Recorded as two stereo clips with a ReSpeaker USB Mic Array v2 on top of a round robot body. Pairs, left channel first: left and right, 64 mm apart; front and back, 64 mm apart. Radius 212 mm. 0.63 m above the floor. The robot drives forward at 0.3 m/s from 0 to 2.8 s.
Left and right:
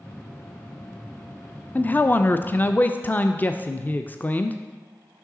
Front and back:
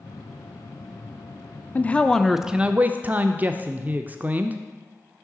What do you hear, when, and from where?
1.8 s a man speaking: 45° left, 0.5 m; by 4.6 s 135° left, 0.5 m